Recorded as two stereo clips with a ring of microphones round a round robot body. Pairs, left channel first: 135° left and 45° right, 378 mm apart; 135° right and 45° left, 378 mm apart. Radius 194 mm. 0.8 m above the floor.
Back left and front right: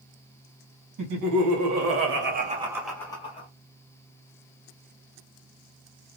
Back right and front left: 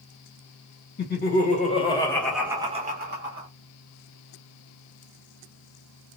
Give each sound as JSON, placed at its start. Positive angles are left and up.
{"t": 1.0, "sound": "laughter", "azimuth_deg": -75, "distance_m": 1.2}